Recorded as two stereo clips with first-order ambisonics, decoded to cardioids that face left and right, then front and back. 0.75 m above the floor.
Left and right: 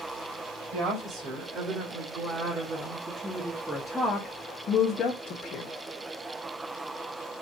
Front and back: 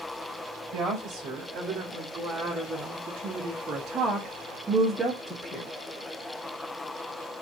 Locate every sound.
0.7 s a woman speaking: 125° right, 1.8 m; by 5.7 s 85° left, 1.2 m